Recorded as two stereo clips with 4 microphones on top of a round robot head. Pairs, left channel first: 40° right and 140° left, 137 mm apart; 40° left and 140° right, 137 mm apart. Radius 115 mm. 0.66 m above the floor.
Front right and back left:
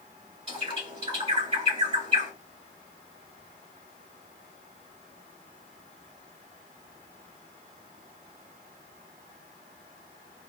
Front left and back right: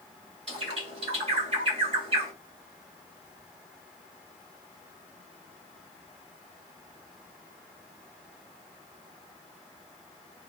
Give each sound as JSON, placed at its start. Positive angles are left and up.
{"t": 0.5, "sound": "a bird", "azimuth_deg": 180, "distance_m": 2.5}